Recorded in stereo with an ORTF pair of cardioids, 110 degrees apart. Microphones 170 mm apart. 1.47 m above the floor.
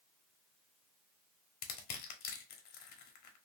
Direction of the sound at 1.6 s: 70° left.